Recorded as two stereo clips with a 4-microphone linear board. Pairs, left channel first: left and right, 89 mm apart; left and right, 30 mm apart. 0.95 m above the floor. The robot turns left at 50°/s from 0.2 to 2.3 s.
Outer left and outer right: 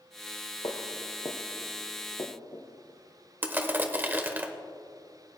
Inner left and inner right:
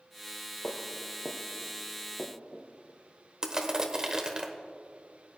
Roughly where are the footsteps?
Left.